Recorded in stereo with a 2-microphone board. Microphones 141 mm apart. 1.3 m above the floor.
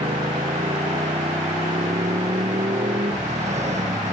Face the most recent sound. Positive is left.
turn(degrees=-50)  # may be behind; listen again after turning